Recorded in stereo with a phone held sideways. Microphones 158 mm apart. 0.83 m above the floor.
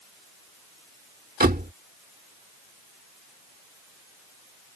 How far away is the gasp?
I don't hear a gasp.